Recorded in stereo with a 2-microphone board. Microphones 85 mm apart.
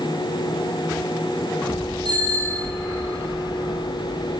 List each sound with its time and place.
2.0 s a bicycle bell: 60° right (ahead or behind), 7 m